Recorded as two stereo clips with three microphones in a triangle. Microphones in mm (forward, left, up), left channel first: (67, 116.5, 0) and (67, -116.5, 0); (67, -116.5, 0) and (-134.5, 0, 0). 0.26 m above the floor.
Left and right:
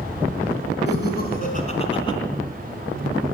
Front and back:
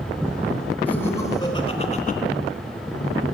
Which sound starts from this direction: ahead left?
Laughter, at 0.9 s.